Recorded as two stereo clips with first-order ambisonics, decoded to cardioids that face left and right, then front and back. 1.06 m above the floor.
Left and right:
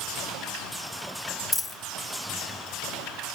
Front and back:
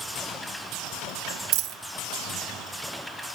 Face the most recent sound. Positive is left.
turn(degrees=165)